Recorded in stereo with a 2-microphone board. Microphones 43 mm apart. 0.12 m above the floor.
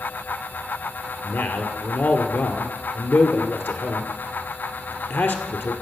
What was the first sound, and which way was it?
A man speaking, 55° left (ahead or behind).